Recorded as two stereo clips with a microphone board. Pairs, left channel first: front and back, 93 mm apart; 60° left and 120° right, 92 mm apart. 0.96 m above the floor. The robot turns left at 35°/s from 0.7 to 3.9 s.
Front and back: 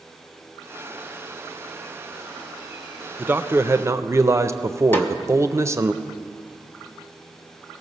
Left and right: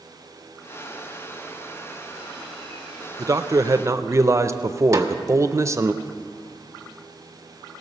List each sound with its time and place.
3.2 s a man speaking: 125° right, 0.5 m; by 5.9 s 150° right, 0.5 m
4.9 s a snare drum: 65° right, 0.9 m